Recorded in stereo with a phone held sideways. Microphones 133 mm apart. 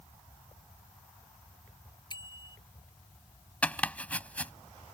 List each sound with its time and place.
2.1 s a bicycle bell: 35° left (ahead or behind)
3.6 s chopping: 10° left (ahead or behind)